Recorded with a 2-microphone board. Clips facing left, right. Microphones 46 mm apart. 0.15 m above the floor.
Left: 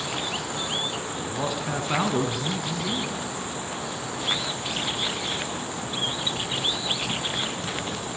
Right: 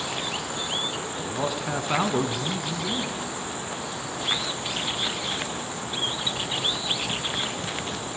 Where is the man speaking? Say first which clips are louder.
Right 1 dB; 5° right (ahead or behind), 1.5 m.